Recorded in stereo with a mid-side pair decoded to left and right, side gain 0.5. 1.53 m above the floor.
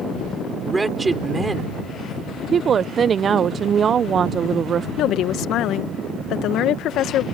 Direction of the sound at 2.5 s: 45° right.